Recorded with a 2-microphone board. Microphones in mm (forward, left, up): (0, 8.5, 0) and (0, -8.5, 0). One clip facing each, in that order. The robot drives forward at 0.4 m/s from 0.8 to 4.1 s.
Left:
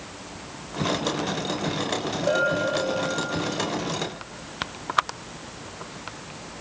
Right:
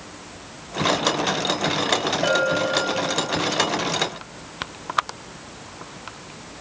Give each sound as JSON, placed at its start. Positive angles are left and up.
{"t": 2.2, "sound": "a bell", "side_deg": -55, "distance_m": 9.5}